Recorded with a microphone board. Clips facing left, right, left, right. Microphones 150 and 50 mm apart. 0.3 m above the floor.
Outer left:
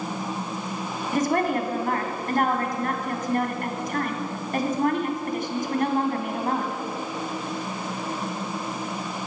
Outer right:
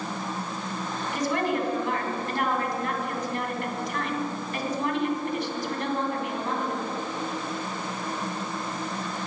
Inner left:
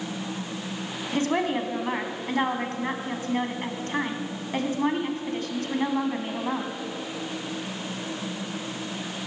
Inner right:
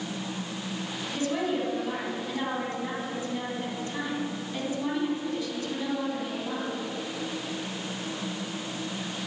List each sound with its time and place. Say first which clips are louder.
1.1 s a woman speaking: outer left 4 dB, inner left 4 dB; 50° left (ahead or behind), 2.5 m